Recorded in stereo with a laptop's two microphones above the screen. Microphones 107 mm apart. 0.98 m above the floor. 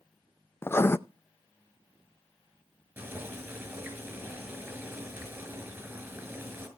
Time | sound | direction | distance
0.6 | writing | 25° left (ahead or behind) | 0.5 m
3.0 | boiling | 20° right (ahead or behind) | 6 m